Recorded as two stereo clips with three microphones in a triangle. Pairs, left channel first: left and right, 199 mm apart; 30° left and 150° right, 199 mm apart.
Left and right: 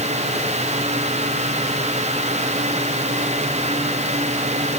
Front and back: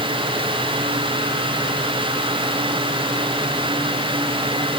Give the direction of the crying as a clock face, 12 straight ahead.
No crying in this recording.